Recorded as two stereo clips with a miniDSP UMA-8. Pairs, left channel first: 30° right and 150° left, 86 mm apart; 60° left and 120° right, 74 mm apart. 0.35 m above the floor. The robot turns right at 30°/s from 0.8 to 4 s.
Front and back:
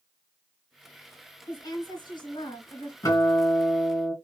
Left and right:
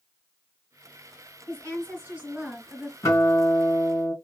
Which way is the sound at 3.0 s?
15° left.